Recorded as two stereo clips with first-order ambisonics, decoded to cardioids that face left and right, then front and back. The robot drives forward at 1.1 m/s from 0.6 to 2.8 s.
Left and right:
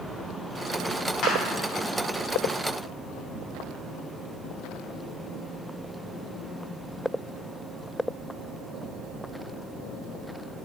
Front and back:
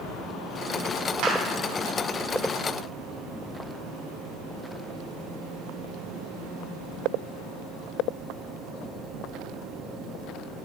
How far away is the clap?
About 2.5 m.